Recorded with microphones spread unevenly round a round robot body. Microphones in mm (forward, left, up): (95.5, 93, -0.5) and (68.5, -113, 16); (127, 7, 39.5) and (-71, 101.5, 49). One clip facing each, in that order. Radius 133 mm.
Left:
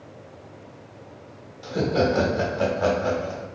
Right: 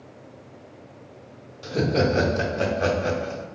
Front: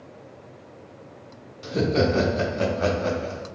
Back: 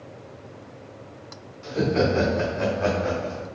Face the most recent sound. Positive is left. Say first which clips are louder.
# even, even
turn(degrees=-35)